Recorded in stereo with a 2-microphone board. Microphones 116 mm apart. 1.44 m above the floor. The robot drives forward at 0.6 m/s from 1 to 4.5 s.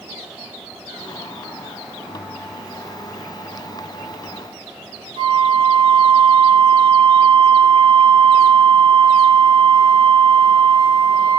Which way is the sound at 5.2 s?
85° right.